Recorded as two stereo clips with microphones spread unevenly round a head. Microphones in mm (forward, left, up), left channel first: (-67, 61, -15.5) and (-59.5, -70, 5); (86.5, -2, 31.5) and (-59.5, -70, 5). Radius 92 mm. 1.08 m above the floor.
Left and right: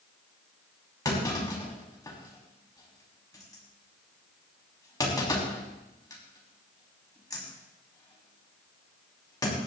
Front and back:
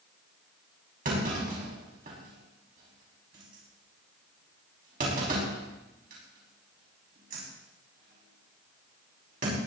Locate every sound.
1.1 s a clunk: 155° left, 5 m